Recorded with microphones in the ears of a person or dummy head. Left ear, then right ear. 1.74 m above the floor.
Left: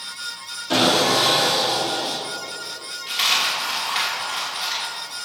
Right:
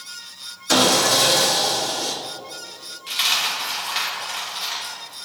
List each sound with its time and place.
0.7 s sawing: 60° right (ahead or behind), 1.7 m
3.1 s a dropped coin: 5° right (ahead or behind), 2.5 m